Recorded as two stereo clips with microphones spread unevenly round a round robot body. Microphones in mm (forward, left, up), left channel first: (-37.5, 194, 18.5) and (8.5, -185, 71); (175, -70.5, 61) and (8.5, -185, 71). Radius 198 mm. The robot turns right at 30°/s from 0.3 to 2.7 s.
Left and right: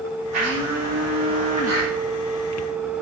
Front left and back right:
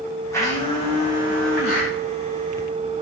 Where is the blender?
40° right, 8.5 m; by 1.9 s 5° left, 8.5 m.